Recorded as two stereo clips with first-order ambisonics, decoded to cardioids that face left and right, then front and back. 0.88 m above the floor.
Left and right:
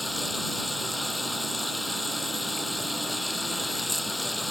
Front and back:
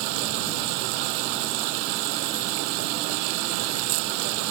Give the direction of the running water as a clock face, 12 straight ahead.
6 o'clock.